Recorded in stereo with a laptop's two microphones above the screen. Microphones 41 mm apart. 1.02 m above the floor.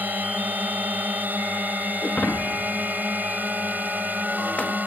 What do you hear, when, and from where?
0.0 s a drone: 45° right (ahead or behind)
2.0 s breaking glass: 35° left (ahead or behind)